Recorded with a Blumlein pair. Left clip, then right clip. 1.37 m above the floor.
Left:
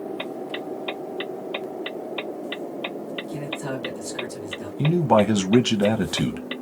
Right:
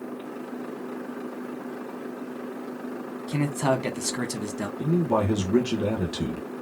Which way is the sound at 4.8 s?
60° left.